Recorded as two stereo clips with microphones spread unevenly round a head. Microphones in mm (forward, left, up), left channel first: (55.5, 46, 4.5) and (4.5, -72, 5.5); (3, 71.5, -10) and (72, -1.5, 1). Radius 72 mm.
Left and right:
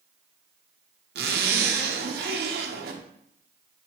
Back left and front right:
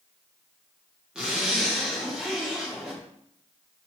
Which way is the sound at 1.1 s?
130° right.